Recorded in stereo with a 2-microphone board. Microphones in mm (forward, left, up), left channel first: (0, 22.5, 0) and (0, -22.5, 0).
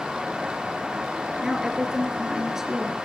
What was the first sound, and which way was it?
A woman speaking, 10° right (ahead or behind).